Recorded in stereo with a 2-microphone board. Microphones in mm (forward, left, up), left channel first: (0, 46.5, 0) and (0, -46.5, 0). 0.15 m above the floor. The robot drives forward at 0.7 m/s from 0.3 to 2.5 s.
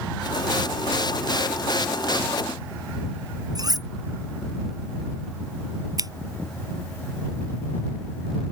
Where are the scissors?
40° right (ahead or behind).